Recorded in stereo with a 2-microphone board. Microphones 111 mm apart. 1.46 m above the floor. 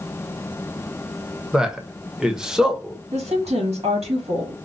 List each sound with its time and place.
1.5 s a man speaking: 5° right (ahead or behind), 0.8 m
3.1 s a woman speaking: 70° right (ahead or behind), 2 m